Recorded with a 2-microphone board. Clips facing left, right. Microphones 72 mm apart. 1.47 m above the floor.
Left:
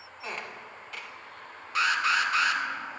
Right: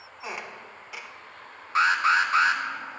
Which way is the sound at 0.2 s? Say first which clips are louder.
Right 1 dB; 10° right (ahead or behind).